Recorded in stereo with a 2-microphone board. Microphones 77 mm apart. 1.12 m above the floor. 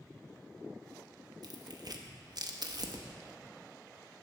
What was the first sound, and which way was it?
Tearing paper, 60° right (ahead or behind).